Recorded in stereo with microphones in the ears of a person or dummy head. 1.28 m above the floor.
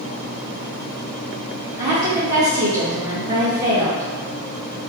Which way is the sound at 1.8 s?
15° right (ahead or behind).